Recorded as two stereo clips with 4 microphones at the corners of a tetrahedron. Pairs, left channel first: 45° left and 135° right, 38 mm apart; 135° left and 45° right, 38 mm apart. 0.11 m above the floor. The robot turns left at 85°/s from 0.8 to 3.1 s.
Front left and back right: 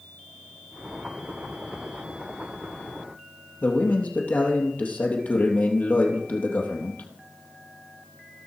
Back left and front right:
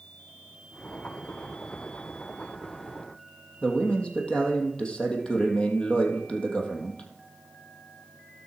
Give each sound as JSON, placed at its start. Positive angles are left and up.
{"t": 3.6, "sound": "a man speaking", "azimuth_deg": 75, "distance_m": 3.0}